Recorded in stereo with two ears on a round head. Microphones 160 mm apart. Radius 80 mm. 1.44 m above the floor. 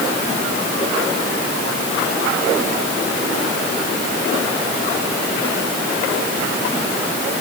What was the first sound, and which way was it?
Only background noise.